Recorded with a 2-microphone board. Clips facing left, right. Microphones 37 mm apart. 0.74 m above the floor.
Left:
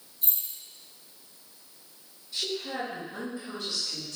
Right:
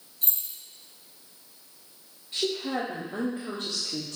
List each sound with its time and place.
0.2 s keys jangling: 65° right (ahead or behind), 3 m
2.3 s a woman speaking: 60° right (ahead or behind), 1.5 m